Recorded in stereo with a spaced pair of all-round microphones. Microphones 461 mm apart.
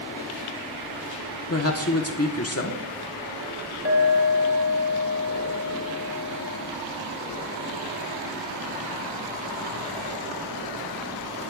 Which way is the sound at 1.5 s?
30° left (ahead or behind).